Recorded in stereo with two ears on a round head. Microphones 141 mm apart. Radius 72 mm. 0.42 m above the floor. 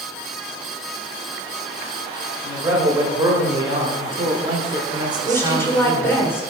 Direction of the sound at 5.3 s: 15° left (ahead or behind).